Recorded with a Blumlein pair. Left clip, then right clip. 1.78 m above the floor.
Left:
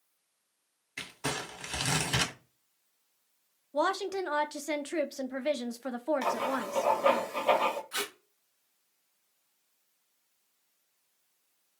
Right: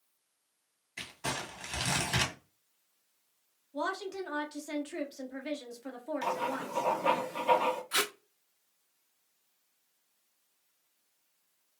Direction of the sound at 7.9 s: 65° right.